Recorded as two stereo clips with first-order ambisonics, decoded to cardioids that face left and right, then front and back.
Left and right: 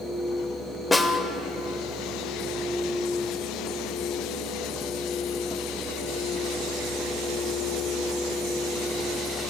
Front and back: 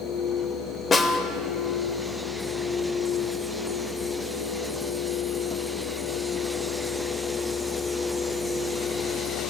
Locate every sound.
0.9 s a snare drum: 25° left, 0.7 m